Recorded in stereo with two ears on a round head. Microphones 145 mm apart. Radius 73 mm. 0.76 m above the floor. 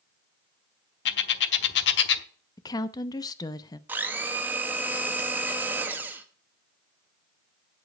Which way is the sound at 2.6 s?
25° left (ahead or behind).